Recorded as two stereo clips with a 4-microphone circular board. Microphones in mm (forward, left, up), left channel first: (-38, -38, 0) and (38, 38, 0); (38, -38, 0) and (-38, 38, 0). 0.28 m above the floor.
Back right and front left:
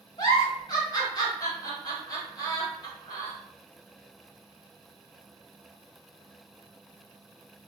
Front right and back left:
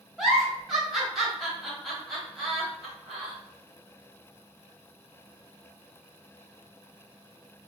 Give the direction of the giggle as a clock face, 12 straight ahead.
5 o'clock.